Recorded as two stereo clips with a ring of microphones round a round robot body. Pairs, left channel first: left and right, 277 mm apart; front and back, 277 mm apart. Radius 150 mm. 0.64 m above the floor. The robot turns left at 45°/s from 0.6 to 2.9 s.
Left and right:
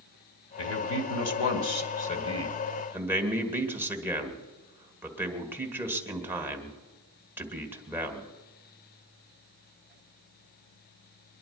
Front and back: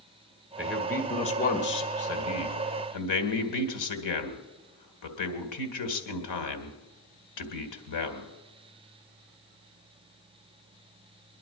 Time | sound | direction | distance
0.6 | a man speaking | 95° left | 2.5 m